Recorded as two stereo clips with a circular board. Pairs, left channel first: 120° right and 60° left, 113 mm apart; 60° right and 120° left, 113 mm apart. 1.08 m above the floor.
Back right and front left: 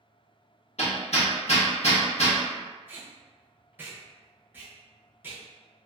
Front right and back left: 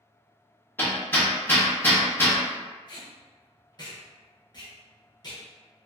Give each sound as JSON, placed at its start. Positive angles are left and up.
{"t": 0.8, "sound": "hammering", "azimuth_deg": -130, "distance_m": 0.8}
{"t": 2.9, "sound": "tape being pulled", "azimuth_deg": -10, "distance_m": 0.7}